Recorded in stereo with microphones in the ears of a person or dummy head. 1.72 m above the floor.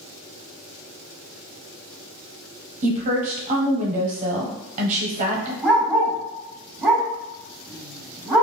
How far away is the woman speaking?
About 0.9 m.